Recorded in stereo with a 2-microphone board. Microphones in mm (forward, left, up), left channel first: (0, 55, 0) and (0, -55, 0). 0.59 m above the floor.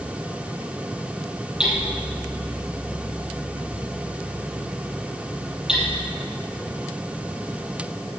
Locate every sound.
1.6 s hammering: 5° right (ahead or behind), 6 m